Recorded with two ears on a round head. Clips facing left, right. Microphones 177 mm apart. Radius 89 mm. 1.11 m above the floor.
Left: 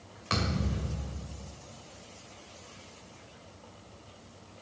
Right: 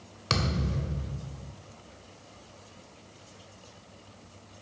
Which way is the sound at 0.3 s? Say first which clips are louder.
Right 1 dB; 55° right (ahead or behind).